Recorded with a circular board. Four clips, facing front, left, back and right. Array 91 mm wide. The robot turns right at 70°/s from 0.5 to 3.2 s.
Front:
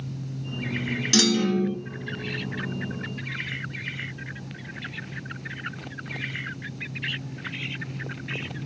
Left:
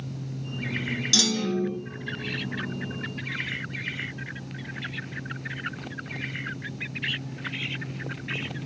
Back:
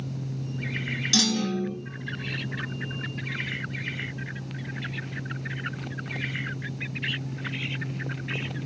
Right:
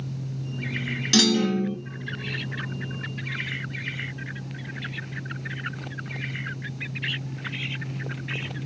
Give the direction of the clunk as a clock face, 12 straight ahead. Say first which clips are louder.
Right 6 dB, front 4 dB; 2 o'clock.